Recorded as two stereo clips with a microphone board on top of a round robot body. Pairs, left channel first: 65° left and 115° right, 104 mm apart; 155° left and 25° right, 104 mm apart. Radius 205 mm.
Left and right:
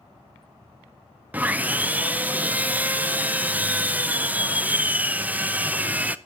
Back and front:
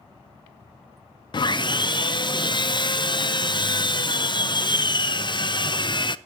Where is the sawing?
175° left, 0.8 m.